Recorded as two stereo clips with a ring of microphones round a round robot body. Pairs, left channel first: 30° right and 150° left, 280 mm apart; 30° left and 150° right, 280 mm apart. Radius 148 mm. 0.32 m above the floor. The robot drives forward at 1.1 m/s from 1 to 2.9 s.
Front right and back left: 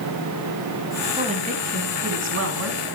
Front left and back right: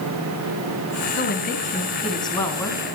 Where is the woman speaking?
80° left, 3 m; by 3.0 s 115° left, 3.5 m.